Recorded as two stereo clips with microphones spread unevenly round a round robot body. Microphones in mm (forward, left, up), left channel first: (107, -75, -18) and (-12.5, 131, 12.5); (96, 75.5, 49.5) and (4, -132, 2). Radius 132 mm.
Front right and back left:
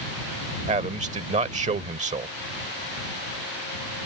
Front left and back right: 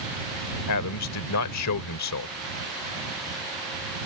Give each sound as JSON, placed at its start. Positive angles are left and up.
{"t": 0.7, "sound": "a man speaking", "azimuth_deg": 60}